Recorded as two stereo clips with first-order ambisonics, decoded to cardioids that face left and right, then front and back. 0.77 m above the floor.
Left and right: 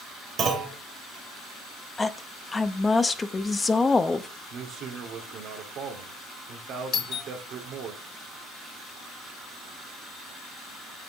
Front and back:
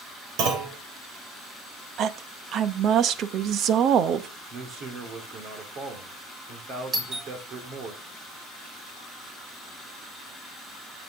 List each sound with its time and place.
0.4 s a clunk: 150° right, 2.5 m
2.0 s a woman speaking: 160° left, 0.6 m
4.5 s a man speaking: 130° right, 2.5 m
6.9 s a doorbell: 115° left, 0.9 m